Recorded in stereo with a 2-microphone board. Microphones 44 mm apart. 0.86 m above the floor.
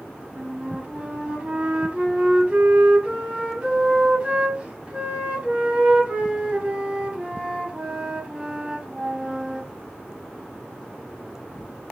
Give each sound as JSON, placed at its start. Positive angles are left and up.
{"t": 0.4, "sound": "a flute", "side_deg": -25, "distance_m": 0.9}